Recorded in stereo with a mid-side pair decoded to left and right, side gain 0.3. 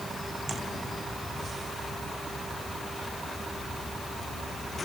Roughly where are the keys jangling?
I don't hear keys jangling.